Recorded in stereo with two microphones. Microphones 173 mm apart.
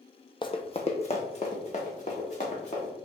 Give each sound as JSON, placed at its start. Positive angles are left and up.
{"t": 0.4, "sound": "running footsteps", "side_deg": 30, "distance_m": 0.5}